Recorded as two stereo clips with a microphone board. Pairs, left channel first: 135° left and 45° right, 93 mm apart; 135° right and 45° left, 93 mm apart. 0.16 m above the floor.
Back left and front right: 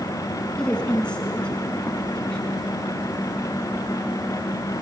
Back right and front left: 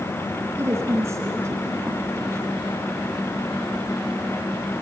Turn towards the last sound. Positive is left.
turn(degrees=65)